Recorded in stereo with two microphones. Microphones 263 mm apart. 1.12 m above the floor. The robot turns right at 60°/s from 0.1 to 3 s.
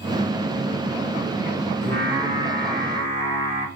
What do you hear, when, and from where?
1.8 s singing: 170° left, 2.5 m; by 3.7 s 120° right, 2.5 m